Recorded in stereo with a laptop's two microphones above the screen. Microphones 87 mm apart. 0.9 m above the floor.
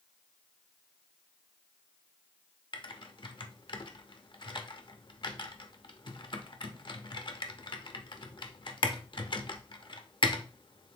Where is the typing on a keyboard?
65° left (ahead or behind), 0.7 m.